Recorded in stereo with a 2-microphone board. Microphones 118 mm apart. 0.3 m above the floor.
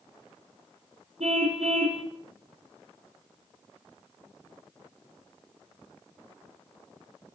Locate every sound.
1.2 s a car horn: 70° right (ahead or behind), 3.5 m